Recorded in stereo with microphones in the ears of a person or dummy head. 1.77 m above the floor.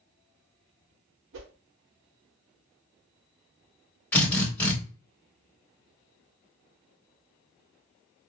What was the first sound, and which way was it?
A whoosh, 70° right (ahead or behind).